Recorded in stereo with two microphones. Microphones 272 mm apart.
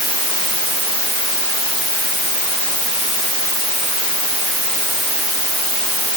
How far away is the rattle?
I don't hear a rattle.